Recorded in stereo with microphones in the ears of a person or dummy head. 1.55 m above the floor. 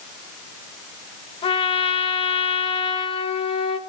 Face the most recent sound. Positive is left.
turn(degrees=30)  # may be behind; listen again after turning